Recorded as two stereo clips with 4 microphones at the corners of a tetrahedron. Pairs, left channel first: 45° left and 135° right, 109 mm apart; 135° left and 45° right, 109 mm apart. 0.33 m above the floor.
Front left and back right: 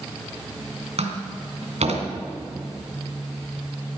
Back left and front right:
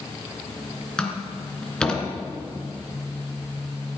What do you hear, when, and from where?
1.0 s a door slam: 145° right, 2.5 m